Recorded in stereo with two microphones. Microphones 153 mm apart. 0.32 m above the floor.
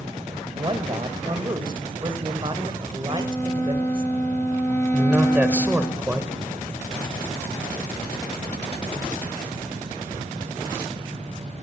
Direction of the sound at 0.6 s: 35° right (ahead or behind).